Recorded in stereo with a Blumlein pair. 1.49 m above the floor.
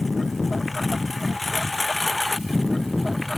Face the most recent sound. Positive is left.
turn(degrees=10)